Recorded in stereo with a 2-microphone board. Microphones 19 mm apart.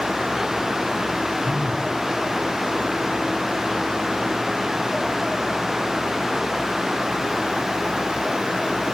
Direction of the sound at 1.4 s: 20° right (ahead or behind).